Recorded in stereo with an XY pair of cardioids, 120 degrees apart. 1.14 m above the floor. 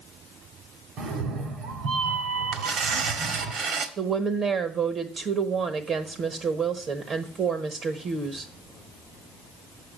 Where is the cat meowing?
70° right, 1.6 m.